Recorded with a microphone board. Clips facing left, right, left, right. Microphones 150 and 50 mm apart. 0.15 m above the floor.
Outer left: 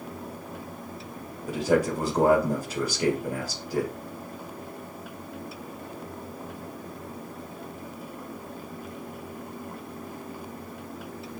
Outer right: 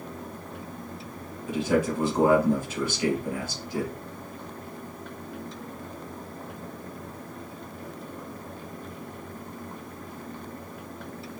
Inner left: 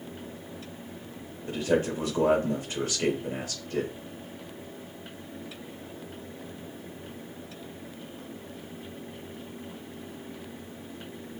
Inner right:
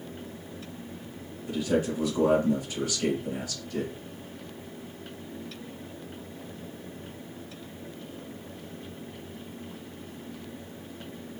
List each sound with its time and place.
1.5 s a man speaking: 40° left (ahead or behind), 3.5 m